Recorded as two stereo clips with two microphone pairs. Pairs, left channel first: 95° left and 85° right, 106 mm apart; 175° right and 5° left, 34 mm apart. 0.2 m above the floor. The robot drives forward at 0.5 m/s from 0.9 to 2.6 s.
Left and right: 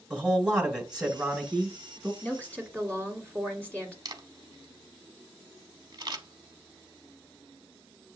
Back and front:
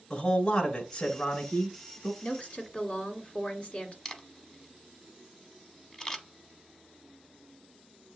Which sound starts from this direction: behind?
A woman speaking, at 2.2 s.